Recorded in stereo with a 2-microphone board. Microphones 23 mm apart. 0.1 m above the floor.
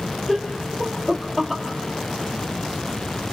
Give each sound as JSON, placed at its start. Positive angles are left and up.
{"t": 0.3, "sound": "laughter", "side_deg": 10, "distance_m": 2.5}